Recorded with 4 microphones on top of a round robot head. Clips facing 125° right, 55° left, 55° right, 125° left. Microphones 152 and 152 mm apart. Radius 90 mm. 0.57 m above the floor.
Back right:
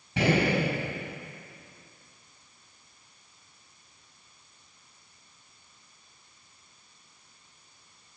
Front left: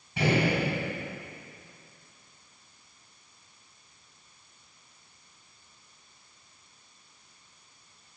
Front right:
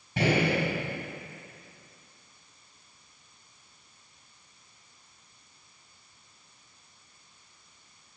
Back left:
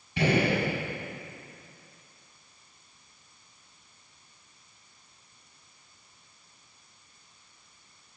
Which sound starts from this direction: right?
A gunshot, at 0.2 s.